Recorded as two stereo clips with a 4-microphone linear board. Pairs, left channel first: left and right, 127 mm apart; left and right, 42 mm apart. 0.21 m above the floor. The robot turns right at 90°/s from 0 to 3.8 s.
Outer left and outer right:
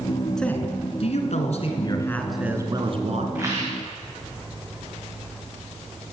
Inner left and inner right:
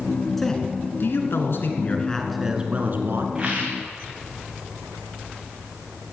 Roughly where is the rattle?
Behind.